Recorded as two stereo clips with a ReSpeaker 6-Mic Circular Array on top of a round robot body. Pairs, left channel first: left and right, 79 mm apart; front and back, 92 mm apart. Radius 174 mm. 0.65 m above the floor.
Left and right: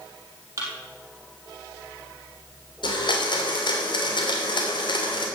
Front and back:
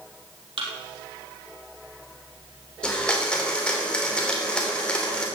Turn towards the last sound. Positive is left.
turn(degrees=80)